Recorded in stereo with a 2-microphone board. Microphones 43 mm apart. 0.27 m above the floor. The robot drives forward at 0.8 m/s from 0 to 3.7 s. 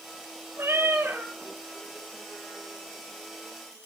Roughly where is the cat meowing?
Right.